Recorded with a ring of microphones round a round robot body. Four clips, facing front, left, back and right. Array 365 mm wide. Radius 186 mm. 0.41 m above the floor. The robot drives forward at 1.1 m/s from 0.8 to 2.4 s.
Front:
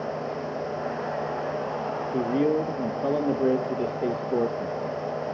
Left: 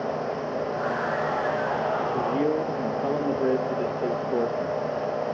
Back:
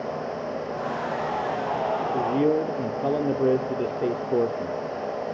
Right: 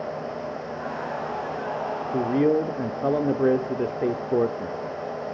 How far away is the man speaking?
About 0.8 m.